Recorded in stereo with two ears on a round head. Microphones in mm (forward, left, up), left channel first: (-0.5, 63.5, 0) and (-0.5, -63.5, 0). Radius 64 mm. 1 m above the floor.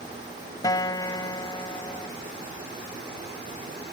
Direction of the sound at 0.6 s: 25° left (ahead or behind).